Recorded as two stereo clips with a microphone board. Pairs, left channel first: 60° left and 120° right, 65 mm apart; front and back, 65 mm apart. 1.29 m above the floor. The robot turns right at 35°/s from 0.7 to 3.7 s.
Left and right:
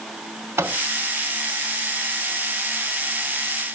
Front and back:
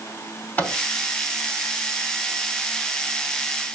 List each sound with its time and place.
0.6 s a microwave: 65° right, 2 m